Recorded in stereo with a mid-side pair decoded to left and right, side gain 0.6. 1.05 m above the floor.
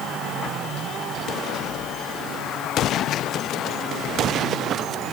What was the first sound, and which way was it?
Only background noise.